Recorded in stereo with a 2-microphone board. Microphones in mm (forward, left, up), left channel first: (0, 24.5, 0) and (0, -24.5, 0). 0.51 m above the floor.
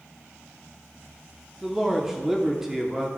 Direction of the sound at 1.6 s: 10° right (ahead or behind).